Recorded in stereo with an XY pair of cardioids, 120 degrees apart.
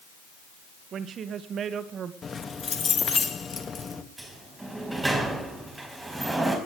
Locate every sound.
0.9 s a woman speaking: 50° right, 1.8 m
2.2 s keys jangling: 30° left, 2 m
4.2 s a sliding door: 15° right, 4.5 m